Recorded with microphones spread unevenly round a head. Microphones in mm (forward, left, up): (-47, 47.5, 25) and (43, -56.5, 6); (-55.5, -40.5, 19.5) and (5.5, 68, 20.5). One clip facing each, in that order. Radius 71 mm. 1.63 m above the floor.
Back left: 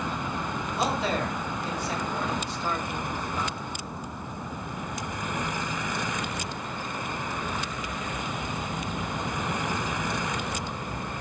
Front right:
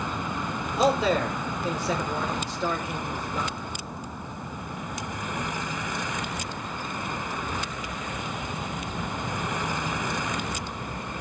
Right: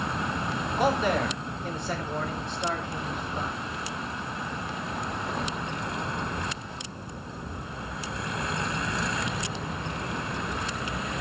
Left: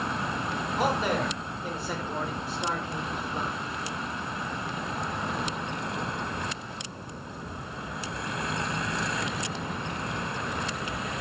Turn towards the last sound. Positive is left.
turn(degrees=-25)